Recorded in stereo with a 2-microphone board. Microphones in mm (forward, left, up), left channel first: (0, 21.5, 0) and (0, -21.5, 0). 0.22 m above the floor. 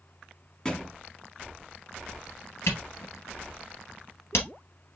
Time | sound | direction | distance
0.7 | a thud | 20° left (ahead or behind) | 0.9 m
2.7 | a camera shutter | 65° left (ahead or behind) | 2.5 m